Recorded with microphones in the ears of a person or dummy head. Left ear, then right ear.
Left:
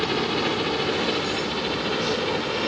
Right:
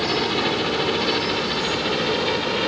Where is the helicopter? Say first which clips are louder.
Right 2 dB; 5° left (ahead or behind); by 2.7 s 5° right (ahead or behind).